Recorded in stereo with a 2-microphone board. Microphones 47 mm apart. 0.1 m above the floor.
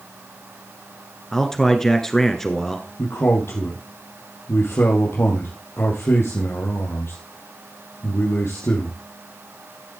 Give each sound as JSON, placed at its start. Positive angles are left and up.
{"t": 1.3, "sound": "a man speaking", "side_deg": 10, "distance_m": 1.8}
{"t": 3.0, "sound": "a man speaking", "side_deg": 60, "distance_m": 3.0}